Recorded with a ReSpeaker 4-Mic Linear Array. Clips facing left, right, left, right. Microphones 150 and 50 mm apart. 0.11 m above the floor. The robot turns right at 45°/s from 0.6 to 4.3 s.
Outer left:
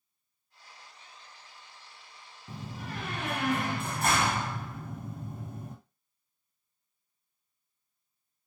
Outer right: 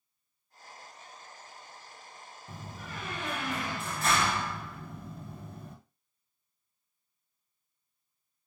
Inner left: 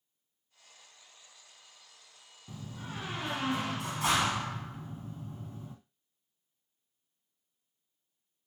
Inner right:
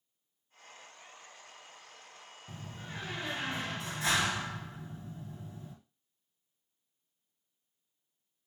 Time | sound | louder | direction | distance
2.5 | a door slam | outer left 4 dB, inner left 2 dB | 40° left | 2 m